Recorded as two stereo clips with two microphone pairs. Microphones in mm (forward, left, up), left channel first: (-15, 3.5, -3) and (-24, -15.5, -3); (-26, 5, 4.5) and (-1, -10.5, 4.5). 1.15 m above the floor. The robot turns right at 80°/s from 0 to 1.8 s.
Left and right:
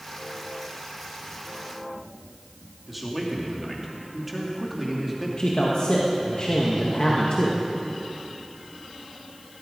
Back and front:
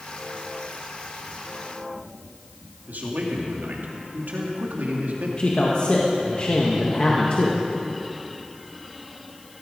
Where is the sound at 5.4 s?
100° left, 1.8 m.